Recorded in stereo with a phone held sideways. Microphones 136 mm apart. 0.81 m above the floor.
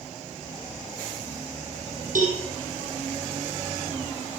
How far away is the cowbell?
About 4 m.